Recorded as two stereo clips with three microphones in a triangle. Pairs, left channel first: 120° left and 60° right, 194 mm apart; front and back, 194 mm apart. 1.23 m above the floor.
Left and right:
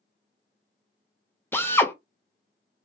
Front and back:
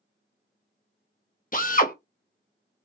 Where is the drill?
40° left, 0.9 m.